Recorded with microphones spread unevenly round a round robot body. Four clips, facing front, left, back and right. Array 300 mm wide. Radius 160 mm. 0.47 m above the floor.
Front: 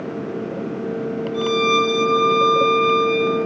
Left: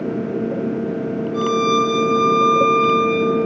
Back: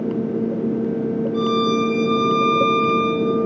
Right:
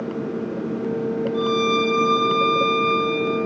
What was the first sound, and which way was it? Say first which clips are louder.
A violin: left 5 dB, front 2 dB; 125° left.